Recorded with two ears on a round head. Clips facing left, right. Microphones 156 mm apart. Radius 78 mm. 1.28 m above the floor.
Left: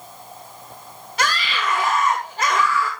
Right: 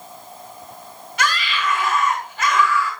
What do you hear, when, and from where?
1.2 s a scream: 30° left (ahead or behind), 2.5 m